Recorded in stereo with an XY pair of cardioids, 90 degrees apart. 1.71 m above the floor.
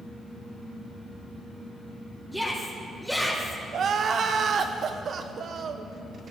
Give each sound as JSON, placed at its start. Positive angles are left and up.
{"t": 2.3, "sound": "a shout", "azimuth_deg": 0, "distance_m": 5.0}
{"t": 3.7, "sound": "crying", "azimuth_deg": -60, "distance_m": 1.2}